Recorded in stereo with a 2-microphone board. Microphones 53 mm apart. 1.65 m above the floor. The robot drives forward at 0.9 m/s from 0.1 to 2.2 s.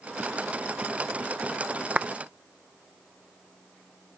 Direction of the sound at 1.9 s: 25° right (ahead or behind).